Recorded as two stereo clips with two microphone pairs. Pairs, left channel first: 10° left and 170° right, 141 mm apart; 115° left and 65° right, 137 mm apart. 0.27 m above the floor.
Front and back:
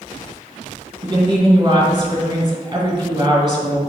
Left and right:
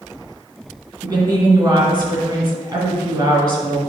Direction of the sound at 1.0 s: 115° right.